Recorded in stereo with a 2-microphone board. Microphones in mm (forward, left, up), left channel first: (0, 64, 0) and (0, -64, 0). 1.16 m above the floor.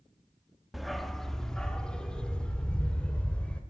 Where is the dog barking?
Centre (ahead or behind), 0.7 m; by 3.6 s 10° left (ahead or behind), 2 m.